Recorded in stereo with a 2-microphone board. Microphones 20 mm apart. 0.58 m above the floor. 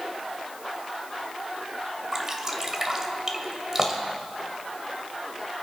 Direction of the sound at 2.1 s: 25° right (ahead or behind).